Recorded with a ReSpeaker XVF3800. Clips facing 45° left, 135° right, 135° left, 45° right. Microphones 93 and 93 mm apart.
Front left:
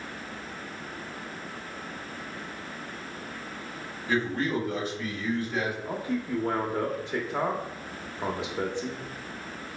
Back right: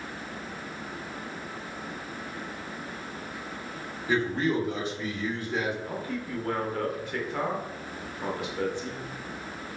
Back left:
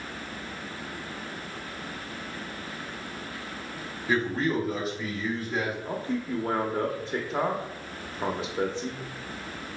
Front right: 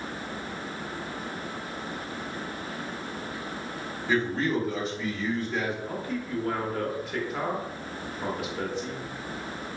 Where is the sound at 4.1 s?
155° right, 1.4 m.